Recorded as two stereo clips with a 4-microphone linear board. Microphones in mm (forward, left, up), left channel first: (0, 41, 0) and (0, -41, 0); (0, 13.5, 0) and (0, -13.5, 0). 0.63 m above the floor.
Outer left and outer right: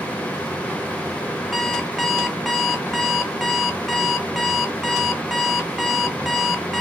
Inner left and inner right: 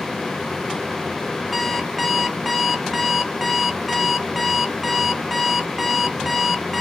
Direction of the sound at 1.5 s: 5° right (ahead or behind).